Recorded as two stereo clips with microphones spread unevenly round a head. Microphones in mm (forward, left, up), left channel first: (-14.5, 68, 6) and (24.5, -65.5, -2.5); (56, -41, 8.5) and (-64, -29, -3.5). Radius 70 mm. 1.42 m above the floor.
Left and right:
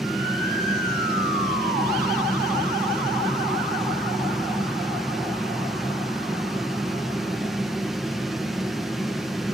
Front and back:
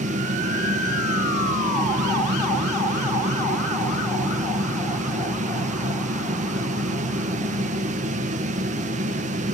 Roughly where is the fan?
Behind.